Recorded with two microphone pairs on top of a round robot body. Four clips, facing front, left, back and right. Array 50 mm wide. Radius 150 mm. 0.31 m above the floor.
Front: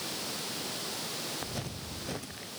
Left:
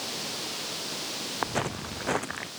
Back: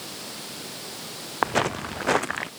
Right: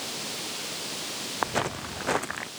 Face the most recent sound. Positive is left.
turn(degrees=-165)